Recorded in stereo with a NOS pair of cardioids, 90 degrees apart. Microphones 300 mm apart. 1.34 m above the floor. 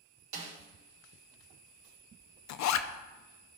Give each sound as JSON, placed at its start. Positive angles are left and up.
{"t": 0.3, "sound": "a snare drum", "azimuth_deg": -65, "distance_m": 3.0}
{"t": 2.5, "sound": "a zipper", "azimuth_deg": 65, "distance_m": 0.6}